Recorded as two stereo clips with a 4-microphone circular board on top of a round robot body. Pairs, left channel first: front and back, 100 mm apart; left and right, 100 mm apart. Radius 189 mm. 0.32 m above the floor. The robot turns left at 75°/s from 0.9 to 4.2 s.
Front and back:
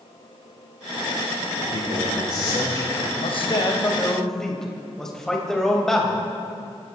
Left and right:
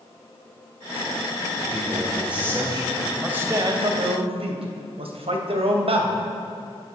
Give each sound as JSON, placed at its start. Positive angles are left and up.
{"t": 1.6, "sound": "a man speaking", "azimuth_deg": 45, "distance_m": 6.5}
{"t": 3.1, "sound": "a man speaking", "azimuth_deg": -5, "distance_m": 3.0}